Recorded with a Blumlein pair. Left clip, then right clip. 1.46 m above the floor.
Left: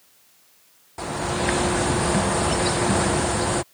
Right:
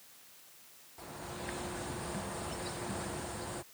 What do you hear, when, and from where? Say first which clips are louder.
1.0 s a bird: left 18 dB; 40° left